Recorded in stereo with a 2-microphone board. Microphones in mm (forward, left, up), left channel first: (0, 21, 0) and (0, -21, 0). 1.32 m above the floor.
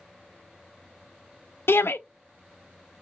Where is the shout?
70° left (ahead or behind), 0.6 m.